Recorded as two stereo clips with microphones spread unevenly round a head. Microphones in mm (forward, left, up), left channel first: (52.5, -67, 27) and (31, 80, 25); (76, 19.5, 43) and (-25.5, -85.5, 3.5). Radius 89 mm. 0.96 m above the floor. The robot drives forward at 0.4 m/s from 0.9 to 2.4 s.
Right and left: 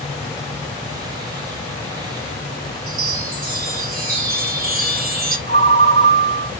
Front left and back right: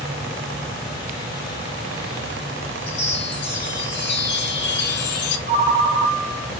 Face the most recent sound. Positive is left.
turn(degrees=155)